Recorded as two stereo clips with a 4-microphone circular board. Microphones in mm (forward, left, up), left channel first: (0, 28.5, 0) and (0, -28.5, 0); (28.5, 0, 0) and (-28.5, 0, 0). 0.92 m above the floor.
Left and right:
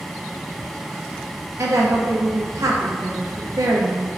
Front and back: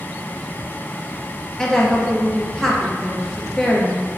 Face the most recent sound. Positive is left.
turn(degrees=-80)